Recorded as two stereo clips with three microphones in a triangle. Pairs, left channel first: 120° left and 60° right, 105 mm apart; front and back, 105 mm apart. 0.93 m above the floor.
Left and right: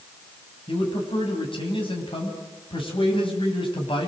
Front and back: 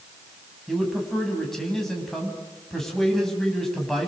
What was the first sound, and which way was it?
A man speaking, 85° left.